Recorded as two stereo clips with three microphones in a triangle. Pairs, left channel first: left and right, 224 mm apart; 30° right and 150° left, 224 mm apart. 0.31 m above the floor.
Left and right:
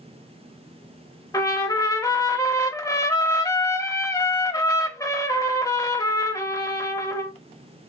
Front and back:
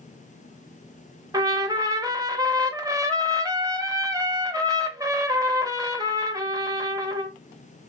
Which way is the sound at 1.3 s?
125° left.